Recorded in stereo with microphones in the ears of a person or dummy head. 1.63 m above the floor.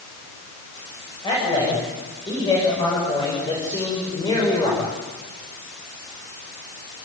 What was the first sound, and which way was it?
A man speaking, 25° left (ahead or behind).